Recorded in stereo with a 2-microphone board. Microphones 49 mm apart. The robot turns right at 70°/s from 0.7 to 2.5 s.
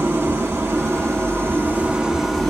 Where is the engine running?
115° right, 1.1 m; by 2.5 s 15° left, 1.1 m.